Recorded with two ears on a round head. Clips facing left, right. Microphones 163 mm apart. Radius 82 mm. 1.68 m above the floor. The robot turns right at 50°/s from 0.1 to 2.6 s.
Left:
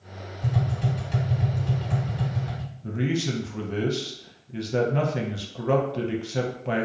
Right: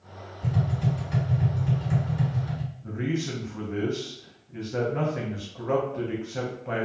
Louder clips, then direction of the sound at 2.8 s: Left 3 dB; 40° left (ahead or behind).